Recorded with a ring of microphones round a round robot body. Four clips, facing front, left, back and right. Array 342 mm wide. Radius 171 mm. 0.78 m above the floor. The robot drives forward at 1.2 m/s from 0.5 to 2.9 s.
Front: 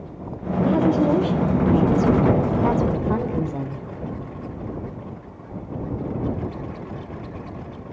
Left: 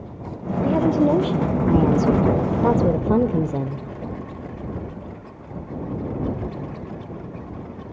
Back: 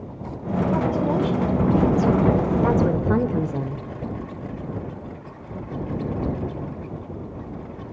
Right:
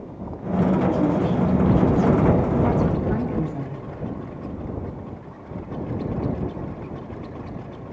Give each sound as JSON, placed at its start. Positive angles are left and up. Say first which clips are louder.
{"t": 0.6, "sound": "a woman speaking", "louder": "left 3 dB, front 5 dB", "azimuth_deg": 55, "distance_m": 3.0}